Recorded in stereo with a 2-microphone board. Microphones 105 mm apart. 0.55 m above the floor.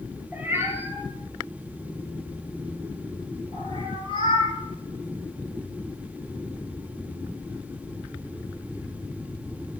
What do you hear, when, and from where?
0.3 s a cat meowing: 15° right (ahead or behind), 4.5 m; by 4.5 s 75° right (ahead or behind), 7.5 m